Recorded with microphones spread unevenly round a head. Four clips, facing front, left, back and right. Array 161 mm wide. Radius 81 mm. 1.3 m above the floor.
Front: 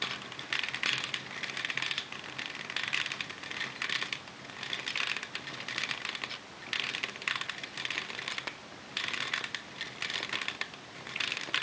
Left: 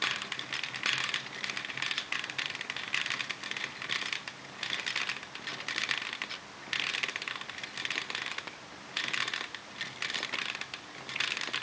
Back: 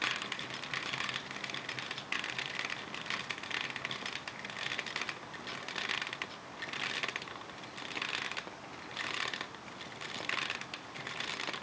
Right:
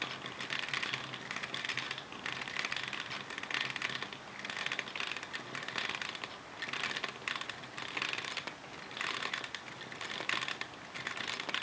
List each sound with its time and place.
Only background noise.